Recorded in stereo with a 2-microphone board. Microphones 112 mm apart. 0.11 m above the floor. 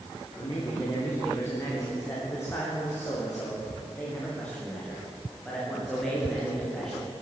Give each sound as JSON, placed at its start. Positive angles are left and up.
{"t": 0.4, "sound": "a man speaking", "side_deg": 35, "distance_m": 7.0}